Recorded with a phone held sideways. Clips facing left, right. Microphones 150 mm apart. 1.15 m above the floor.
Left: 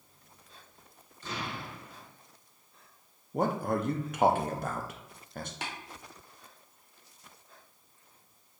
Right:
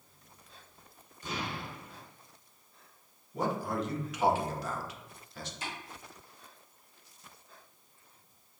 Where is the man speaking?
50° left (ahead or behind), 0.6 m.